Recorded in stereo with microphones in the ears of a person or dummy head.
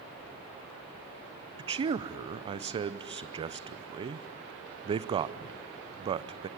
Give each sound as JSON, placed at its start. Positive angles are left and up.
{"t": 1.6, "sound": "a man speaking", "side_deg": -25, "distance_m": 0.5}